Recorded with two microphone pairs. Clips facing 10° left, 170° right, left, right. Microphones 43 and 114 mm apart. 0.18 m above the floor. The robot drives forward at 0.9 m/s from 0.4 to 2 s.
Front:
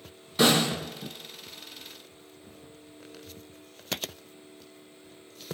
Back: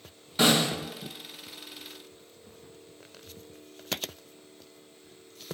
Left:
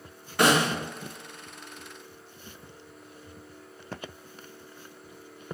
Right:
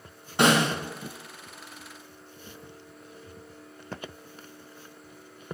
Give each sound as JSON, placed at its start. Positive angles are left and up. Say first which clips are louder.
{"t": 0.4, "sound": "a snare drum", "louder": "front 1 dB, right 1 dB", "azimuth_deg": -85, "distance_m": 1.7}